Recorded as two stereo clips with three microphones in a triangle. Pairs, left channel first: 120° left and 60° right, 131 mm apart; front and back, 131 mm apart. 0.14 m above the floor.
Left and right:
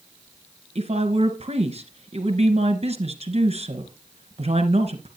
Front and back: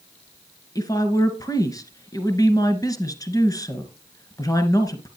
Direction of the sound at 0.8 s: 55° right.